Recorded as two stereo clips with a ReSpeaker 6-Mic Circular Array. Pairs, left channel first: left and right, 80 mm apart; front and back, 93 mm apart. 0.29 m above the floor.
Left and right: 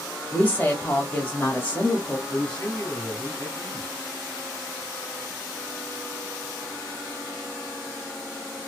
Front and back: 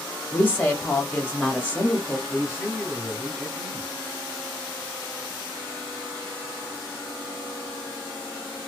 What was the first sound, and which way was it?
A woman speaking, 50° left.